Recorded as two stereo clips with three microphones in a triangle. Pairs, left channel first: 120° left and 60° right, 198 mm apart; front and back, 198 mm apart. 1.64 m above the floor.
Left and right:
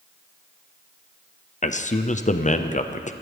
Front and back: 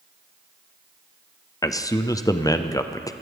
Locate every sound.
1.6 s a man speaking: 75° left, 0.6 m